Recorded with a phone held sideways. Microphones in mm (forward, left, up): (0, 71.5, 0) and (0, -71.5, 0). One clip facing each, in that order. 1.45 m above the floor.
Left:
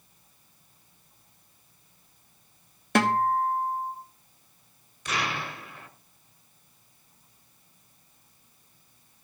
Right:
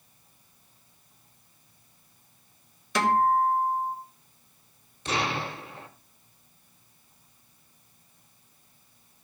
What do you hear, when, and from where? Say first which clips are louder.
3.0 s a guitar: right 1 dB; 60° left (ahead or behind), 1.9 m
5.0 s an explosion: right 3 dB; 30° right (ahead or behind), 1.3 m